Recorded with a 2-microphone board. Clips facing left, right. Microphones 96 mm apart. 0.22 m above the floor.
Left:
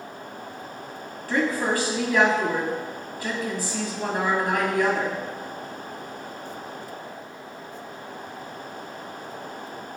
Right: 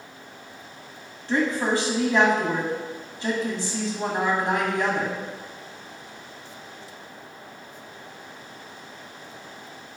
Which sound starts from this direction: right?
A woman speaking, at 1.3 s.